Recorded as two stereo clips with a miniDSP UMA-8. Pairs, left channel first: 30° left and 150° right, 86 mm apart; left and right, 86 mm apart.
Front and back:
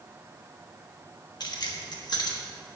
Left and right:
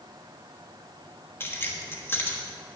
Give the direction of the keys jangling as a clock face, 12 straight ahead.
11 o'clock.